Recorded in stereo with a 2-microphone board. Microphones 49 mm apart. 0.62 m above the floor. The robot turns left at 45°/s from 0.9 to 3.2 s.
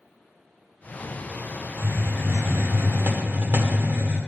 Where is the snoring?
I don't hear snoring.